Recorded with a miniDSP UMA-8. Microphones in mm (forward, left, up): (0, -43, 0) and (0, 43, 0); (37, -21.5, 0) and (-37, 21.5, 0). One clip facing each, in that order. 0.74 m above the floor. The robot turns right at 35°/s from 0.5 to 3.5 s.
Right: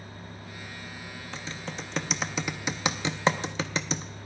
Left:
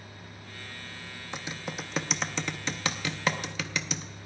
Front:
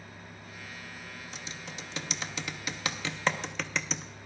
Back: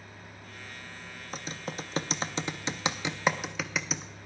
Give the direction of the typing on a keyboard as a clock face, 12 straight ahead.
7 o'clock.